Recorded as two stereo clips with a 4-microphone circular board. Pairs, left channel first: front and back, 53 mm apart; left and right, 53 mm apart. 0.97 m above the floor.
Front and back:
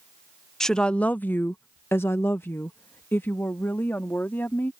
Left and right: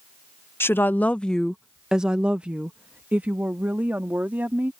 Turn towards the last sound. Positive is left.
turn(degrees=-40)